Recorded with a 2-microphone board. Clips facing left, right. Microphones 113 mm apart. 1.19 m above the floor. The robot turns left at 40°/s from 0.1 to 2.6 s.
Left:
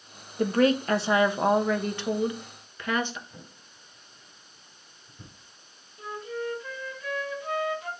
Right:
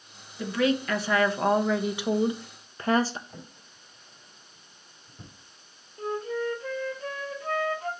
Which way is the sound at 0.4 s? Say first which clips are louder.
Left 3 dB; 55° left.